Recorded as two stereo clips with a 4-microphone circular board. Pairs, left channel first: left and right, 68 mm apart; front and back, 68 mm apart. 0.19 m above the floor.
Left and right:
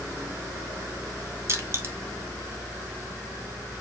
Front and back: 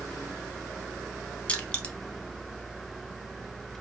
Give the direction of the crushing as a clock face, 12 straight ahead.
2 o'clock.